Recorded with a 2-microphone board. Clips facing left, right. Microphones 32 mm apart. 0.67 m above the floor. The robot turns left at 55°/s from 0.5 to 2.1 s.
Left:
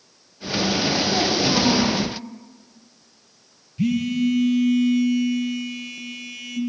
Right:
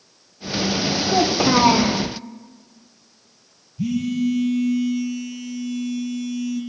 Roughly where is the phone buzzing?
Left.